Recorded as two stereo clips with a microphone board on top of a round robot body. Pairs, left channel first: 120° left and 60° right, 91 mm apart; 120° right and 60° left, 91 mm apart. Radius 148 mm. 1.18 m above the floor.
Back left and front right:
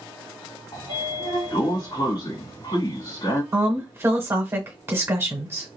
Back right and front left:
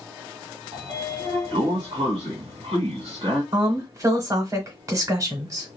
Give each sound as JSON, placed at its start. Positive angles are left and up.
{"t": 0.7, "sound": "a sliding door", "azimuth_deg": 75, "distance_m": 1.8}
{"t": 3.5, "sound": "a woman speaking", "azimuth_deg": 5, "distance_m": 1.2}